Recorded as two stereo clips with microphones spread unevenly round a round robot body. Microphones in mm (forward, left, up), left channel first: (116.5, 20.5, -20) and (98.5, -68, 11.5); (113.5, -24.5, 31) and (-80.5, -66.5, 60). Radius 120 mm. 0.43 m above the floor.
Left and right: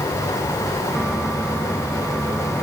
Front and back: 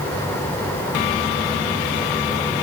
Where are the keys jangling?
I don't hear keys jangling.